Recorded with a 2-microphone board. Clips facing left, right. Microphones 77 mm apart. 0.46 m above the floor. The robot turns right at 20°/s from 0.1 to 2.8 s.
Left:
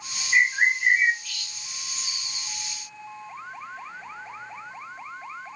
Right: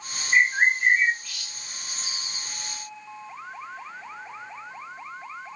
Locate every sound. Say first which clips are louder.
0.3 s a bird: right 1 dB; 30° right (ahead or behind), 1.7 m; by 2.5 s centre (ahead or behind), 1.7 m